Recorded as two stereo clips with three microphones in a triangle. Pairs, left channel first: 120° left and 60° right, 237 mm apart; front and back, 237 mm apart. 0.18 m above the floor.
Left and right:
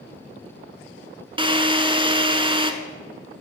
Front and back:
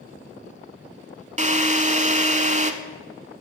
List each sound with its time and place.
1.4 s a drill: 125° right, 0.7 m